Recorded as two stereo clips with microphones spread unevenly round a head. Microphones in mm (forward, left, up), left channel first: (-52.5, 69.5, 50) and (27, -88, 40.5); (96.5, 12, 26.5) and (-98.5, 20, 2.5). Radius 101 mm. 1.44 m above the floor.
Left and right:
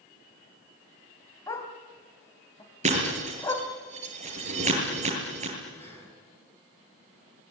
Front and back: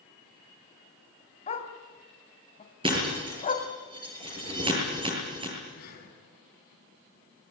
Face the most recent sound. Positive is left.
turn(degrees=40)